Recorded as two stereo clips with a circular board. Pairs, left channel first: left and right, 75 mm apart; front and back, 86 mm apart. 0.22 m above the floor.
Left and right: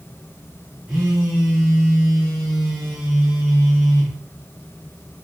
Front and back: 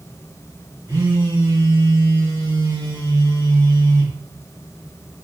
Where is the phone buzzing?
155° right, 2.0 m.